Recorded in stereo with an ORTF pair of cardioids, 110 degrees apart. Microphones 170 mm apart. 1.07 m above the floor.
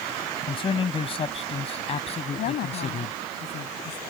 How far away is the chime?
No chime in this recording.